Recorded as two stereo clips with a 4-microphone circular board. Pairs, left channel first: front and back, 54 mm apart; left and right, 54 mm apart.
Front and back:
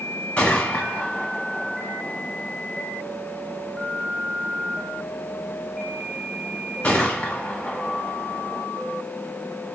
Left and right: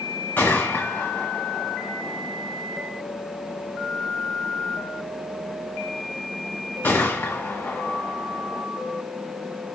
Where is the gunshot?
65° left, 1.9 m.